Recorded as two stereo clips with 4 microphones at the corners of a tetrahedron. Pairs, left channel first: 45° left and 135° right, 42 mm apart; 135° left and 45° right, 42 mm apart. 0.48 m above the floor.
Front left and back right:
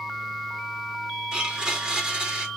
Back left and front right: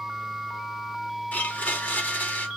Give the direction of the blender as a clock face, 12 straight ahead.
7 o'clock.